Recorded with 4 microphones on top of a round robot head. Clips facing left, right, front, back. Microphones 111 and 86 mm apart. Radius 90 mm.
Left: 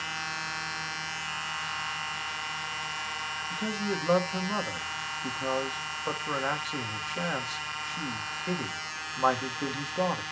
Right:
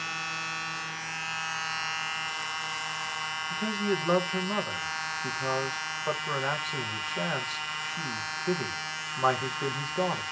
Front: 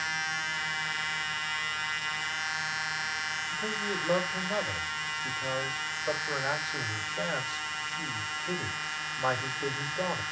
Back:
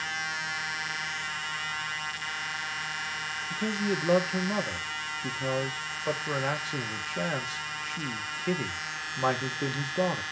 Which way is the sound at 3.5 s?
Straight behind.